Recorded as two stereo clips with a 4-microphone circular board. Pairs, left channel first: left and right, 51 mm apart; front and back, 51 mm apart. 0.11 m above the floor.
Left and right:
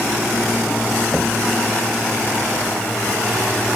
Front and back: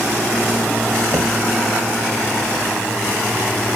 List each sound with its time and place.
1.1 s knocking: 175° left